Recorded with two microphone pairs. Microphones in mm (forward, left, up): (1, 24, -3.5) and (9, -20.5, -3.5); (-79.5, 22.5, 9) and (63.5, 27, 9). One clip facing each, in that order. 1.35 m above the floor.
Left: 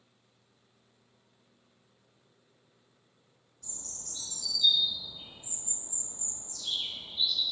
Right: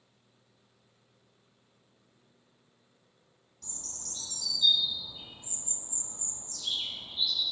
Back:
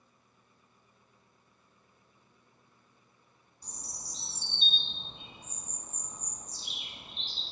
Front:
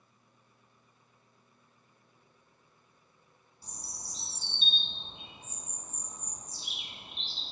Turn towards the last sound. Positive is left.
turn(degrees=-80)